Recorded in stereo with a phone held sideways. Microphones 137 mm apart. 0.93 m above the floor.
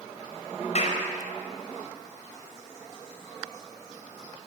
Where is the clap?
55° left (ahead or behind), 5 m.